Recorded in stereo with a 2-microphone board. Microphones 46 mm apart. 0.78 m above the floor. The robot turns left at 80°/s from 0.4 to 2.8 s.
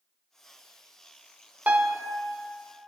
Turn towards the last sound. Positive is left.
turn(degrees=140)